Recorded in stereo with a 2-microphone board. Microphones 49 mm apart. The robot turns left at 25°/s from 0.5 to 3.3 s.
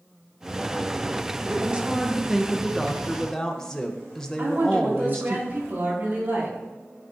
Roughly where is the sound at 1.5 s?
Behind right.